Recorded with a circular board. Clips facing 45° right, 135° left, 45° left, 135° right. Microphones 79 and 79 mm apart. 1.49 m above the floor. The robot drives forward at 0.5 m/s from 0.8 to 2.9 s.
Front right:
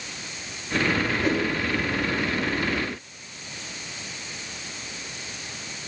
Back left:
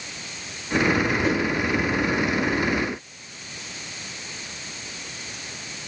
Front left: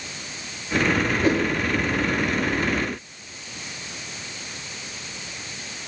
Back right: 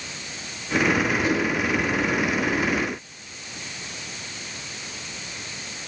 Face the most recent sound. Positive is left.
turn(degrees=120)